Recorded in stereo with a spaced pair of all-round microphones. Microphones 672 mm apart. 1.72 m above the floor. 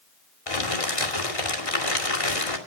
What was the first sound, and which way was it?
Crumpling, 55° left (ahead or behind).